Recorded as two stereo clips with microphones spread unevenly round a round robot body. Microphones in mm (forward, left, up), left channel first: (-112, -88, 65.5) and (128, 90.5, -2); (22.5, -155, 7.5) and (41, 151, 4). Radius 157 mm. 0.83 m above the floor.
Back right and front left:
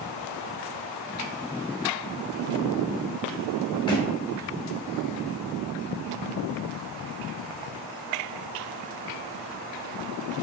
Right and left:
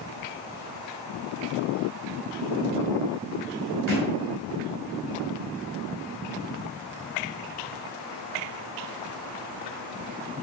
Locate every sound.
3.9 s a thud: 140° left, 2.5 m